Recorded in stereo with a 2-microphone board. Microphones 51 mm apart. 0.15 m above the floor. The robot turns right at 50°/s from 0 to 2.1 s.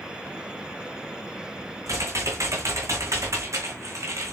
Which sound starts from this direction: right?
Typing on a keyboard, at 1.9 s.